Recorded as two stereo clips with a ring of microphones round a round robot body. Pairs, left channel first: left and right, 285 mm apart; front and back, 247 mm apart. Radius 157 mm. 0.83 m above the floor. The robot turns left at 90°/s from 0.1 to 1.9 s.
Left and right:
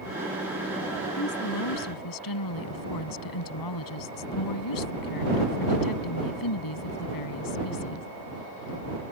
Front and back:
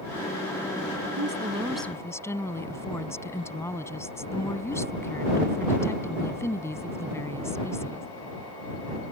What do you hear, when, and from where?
1.2 s a woman speaking: 145° left; by 8.1 s 80° left